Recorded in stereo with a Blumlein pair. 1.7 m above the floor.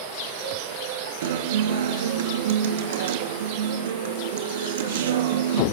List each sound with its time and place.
1.2 s a guitar: 55° right, 2.5 m